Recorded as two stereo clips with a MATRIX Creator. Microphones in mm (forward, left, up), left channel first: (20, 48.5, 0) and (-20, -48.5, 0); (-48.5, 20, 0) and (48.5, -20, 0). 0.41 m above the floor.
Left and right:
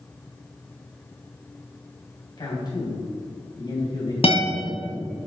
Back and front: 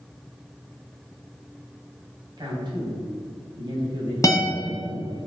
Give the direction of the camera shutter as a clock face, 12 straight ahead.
No camera shutter in this recording.